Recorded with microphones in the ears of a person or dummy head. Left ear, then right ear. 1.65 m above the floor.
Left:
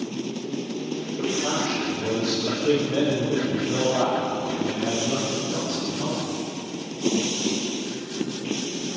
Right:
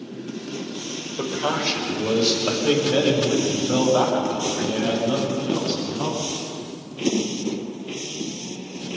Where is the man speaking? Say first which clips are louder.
Right 2 dB; 55° right (ahead or behind), 7 m.